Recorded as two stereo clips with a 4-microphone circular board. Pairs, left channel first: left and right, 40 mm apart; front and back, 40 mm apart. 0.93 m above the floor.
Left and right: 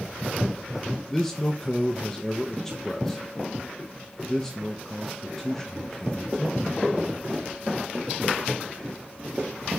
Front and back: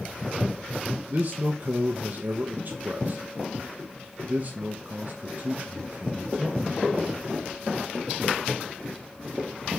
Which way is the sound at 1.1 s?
165° left.